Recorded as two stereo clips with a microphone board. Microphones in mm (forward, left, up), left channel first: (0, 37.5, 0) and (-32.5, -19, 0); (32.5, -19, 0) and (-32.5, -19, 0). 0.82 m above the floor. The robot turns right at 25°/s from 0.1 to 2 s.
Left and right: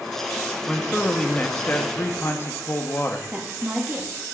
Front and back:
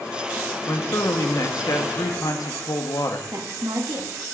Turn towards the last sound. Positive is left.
turn(degrees=175)